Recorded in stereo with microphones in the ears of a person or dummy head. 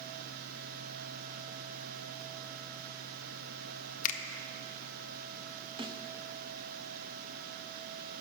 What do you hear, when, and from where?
4.0 s a finger snap: 40° left (ahead or behind), 0.6 m
5.8 s a snare drum: 25° right (ahead or behind), 0.6 m